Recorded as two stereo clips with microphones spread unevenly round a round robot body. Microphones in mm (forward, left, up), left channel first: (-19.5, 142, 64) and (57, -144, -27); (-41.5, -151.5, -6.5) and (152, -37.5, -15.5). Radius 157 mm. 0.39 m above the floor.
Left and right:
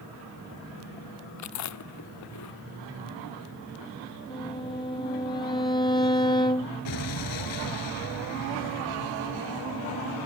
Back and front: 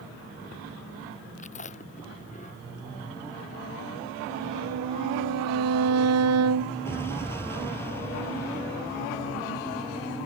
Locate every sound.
1.4 s chewing: 140° left
4.3 s a violin: 30° left
6.8 s an explosion: 130° left